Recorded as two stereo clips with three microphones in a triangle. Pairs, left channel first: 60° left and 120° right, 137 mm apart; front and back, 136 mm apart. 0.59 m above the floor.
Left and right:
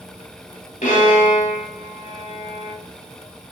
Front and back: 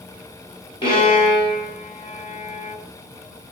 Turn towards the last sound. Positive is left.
turn(degrees=50)